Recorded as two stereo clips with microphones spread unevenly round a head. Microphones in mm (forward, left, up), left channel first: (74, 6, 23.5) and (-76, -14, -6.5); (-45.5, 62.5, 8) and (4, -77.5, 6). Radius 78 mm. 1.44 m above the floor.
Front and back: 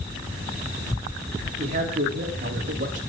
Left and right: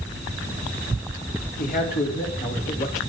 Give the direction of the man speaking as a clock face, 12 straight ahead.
7 o'clock.